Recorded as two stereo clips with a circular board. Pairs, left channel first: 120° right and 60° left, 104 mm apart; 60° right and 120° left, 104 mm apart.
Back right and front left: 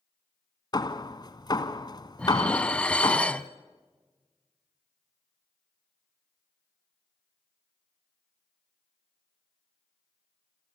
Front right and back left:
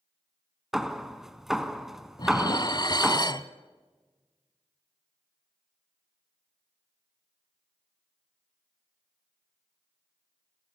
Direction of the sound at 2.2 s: 45° right.